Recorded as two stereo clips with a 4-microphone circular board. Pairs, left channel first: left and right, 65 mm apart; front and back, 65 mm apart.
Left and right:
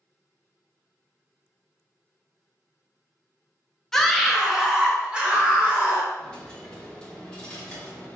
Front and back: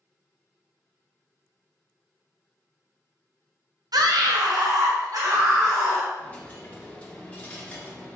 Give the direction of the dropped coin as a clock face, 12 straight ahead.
11 o'clock.